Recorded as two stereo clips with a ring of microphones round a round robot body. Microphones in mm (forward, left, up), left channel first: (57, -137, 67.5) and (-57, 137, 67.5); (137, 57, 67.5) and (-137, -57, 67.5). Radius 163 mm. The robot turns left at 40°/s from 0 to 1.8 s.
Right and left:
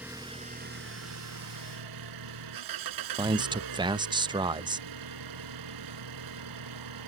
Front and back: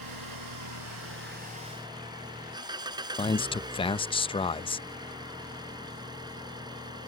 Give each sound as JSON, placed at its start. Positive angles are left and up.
{"t": 0.0, "sound": "an engine running", "azimuth_deg": -160}
{"t": 3.2, "sound": "a man speaking", "azimuth_deg": 65}